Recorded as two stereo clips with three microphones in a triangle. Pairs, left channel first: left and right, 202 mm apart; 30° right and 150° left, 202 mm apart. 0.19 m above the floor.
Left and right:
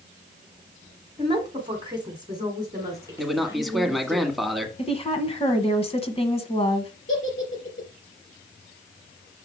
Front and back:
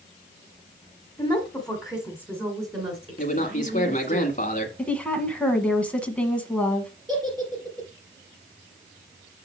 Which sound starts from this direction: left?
A giggle, at 7.1 s.